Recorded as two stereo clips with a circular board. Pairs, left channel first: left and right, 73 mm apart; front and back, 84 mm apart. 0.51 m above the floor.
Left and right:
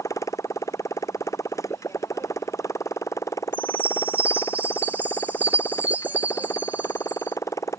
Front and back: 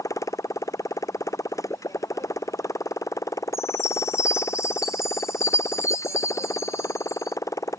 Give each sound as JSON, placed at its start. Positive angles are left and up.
{"t": 0.0, "sound": "a motorcycle", "azimuth_deg": 50}
{"t": 3.5, "sound": "a chime", "azimuth_deg": -35}